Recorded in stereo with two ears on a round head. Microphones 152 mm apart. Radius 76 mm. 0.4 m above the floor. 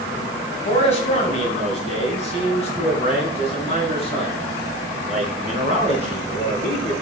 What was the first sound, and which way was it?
A man speaking, 40° left (ahead or behind).